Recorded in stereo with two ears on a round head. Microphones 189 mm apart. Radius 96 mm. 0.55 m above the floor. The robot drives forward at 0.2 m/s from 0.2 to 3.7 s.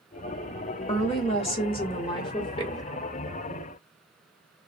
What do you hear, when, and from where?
0.9 s a woman speaking: 30° left (ahead or behind), 1.1 m; by 2.8 s 25° left (ahead or behind), 1.3 m